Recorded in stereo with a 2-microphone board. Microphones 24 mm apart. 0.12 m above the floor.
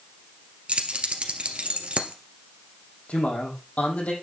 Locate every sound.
0.7 s keys jangling: 50° right (ahead or behind), 1.9 m
3.1 s a man speaking: 75° left (ahead or behind), 5.5 m